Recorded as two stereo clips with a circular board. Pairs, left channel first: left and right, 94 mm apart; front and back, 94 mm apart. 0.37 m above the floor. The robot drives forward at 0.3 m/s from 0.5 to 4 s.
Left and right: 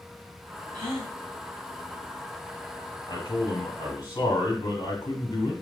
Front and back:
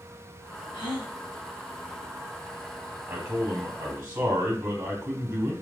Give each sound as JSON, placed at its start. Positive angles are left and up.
{"t": 0.7, "sound": "a gasp", "azimuth_deg": -35, "distance_m": 2.5}
{"t": 3.1, "sound": "a man speaking", "azimuth_deg": 130, "distance_m": 2.0}